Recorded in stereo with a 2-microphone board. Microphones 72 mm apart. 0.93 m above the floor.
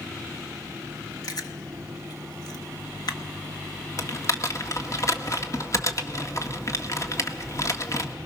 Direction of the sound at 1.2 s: 60° left (ahead or behind).